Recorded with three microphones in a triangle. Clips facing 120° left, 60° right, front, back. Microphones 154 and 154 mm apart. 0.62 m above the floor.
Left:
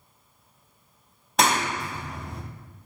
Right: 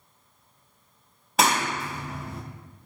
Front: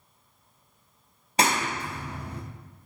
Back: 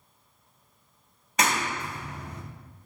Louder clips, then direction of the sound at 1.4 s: Even, front 2 dB; 25° left.